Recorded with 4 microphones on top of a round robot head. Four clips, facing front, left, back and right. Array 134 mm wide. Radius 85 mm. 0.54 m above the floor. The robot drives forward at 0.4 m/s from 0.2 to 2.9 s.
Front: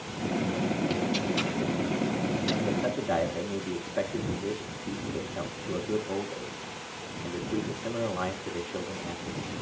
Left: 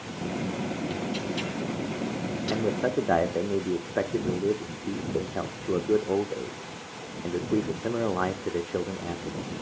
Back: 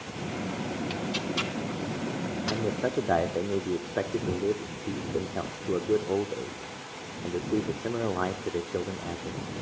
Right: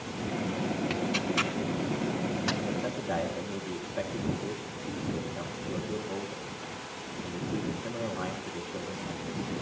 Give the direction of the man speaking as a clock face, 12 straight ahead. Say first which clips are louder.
Left 6 dB, back 4 dB; 8 o'clock.